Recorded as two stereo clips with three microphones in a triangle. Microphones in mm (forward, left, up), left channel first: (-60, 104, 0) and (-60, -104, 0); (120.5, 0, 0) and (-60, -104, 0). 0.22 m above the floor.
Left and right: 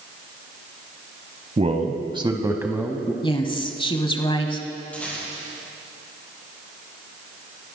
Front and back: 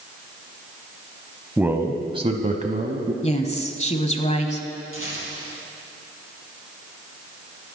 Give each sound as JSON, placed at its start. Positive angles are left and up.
{"t": 1.6, "sound": "a man speaking", "azimuth_deg": -70, "distance_m": 1.1}
{"t": 3.2, "sound": "a woman speaking", "azimuth_deg": 50, "distance_m": 1.1}
{"t": 4.9, "sound": "a rattle", "azimuth_deg": 5, "distance_m": 5.0}